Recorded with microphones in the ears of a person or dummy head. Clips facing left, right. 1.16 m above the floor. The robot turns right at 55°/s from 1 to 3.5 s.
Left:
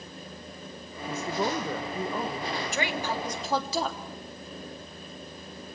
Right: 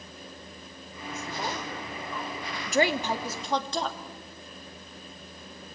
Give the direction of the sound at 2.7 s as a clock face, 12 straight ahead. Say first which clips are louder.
Right 9 dB; 1 o'clock.